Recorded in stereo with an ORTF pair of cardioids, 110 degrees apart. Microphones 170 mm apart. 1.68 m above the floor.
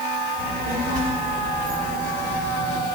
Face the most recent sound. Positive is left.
turn(degrees=-50)